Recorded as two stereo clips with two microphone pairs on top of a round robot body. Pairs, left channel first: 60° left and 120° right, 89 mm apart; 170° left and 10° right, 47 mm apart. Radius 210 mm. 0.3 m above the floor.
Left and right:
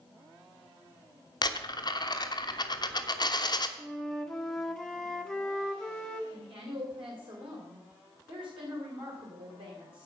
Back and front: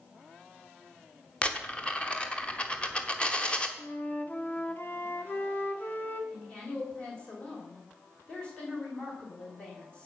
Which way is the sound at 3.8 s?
135° left.